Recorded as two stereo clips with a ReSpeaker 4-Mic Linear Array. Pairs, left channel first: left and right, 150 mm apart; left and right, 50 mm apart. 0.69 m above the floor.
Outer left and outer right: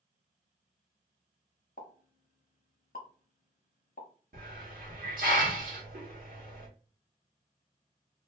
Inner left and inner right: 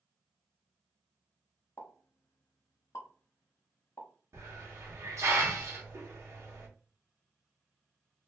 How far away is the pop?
About 0.8 m.